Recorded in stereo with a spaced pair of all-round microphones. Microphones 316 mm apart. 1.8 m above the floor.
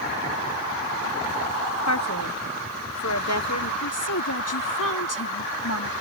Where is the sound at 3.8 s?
70° left (ahead or behind).